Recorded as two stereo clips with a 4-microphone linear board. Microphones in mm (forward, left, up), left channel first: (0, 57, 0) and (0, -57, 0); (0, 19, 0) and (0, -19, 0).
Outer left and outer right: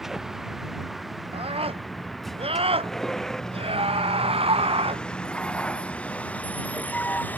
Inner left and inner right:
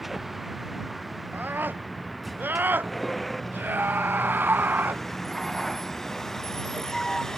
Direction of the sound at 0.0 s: 5° right (ahead or behind).